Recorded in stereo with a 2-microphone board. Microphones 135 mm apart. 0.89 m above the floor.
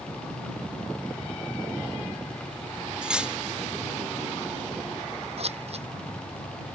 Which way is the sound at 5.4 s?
50° right (ahead or behind).